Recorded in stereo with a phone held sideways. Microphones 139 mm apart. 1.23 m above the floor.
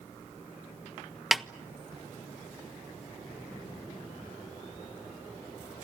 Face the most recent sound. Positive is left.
turn(degrees=0)  # may be behind; listen again after turning